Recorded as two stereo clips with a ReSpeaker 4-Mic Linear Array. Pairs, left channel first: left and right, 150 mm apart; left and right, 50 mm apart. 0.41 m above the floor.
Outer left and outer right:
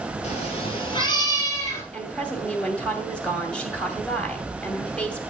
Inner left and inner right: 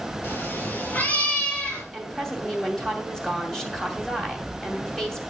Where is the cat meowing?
45° left (ahead or behind), 3 m; by 1.8 s 15° left (ahead or behind), 3 m.